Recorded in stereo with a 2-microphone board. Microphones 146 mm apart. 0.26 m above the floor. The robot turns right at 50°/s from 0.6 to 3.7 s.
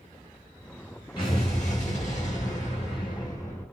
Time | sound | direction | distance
1.2 | an explosion | 40° left | 2.5 m